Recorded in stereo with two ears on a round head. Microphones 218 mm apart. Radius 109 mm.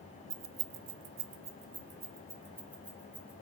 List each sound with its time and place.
0.3 s keys jangling: 65° right (ahead or behind), 0.8 m; by 3.3 s 5° right (ahead or behind), 3 m